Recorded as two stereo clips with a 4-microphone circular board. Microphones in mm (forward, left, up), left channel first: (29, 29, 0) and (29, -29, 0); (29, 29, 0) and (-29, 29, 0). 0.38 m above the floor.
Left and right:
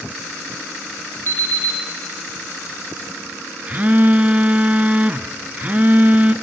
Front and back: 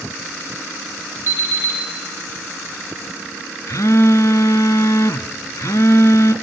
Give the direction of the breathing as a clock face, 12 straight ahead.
No breathing in this recording.